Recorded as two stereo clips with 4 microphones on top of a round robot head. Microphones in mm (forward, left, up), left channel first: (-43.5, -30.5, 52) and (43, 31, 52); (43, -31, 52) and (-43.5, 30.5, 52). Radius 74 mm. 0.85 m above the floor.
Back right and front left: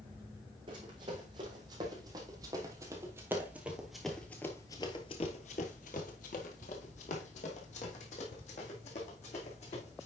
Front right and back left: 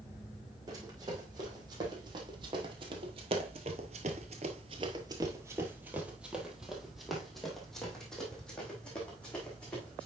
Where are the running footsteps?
85° left, 2.5 m; by 10.1 s 115° right, 3.5 m.